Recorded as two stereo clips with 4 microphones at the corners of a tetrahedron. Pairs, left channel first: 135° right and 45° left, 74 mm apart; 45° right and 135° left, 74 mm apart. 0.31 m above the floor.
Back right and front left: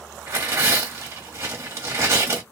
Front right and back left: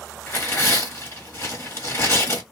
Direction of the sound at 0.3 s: Straight ahead.